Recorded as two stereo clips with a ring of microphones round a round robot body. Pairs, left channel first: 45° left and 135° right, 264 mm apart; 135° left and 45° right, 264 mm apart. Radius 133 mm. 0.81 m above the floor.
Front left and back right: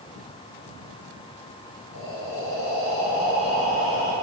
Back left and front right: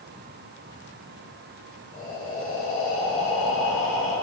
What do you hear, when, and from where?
1.9 s breathing: 75° left, 3.5 m